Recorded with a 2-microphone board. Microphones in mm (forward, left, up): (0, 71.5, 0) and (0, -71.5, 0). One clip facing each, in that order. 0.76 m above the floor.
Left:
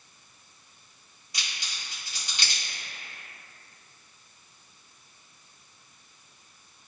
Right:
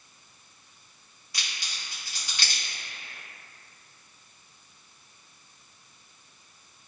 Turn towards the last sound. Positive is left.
turn(degrees=20)  # may be behind; listen again after turning